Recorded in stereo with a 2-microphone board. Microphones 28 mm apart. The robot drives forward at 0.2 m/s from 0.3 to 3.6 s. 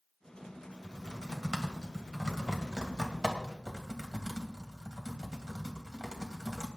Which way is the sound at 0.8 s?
30° right (ahead or behind).